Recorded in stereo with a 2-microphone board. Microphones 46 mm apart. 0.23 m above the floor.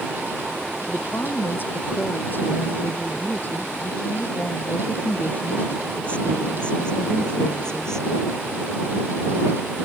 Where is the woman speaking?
50° left (ahead or behind); by 8.1 s 10° left (ahead or behind).